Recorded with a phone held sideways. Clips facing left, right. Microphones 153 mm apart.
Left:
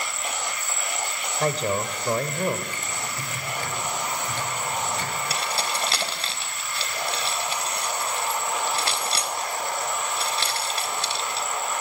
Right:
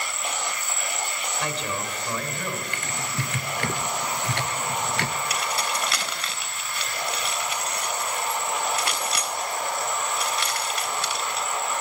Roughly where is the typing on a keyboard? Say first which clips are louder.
Right 2 dB; right.